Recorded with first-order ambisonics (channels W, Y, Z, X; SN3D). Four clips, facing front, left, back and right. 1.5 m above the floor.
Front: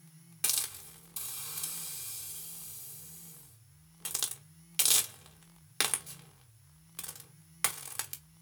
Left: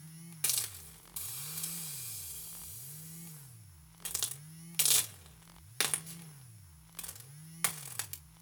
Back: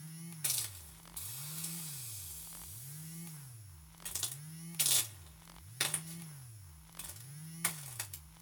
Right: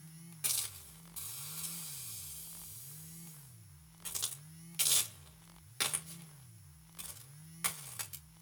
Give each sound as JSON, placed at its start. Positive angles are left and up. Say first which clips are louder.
{"t": 0.4, "sound": "a hiss", "louder": "left 3 dB, front 6 dB", "azimuth_deg": 30, "distance_m": 1.9}